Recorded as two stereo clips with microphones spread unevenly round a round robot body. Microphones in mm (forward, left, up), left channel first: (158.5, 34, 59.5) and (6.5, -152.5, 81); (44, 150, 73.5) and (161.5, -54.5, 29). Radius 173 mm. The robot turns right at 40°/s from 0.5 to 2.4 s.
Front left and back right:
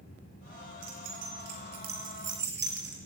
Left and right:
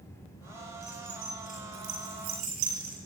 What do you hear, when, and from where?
0.8 s keys jangling: 150° right, 7 m; by 3.0 s 85° right, 7 m